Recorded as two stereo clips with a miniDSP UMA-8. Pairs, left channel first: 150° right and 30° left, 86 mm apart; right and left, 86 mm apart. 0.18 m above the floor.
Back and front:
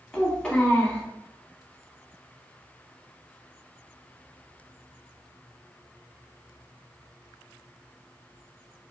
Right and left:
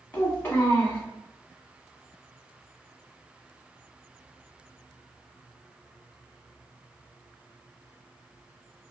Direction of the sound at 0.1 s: 85° right.